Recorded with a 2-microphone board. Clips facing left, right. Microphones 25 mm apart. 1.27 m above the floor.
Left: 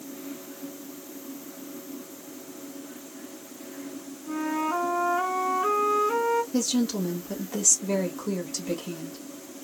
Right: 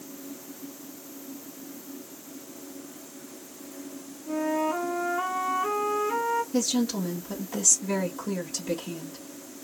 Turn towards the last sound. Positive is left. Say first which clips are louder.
# even
turn(degrees=5)  # may be behind; listen again after turning